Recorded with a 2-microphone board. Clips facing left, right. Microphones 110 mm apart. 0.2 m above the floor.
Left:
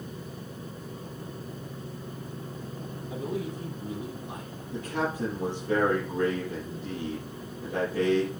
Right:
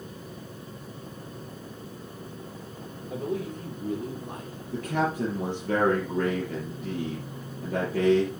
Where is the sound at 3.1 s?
60° right (ahead or behind), 5.5 m; by 4.5 s 55° right (ahead or behind), 6 m.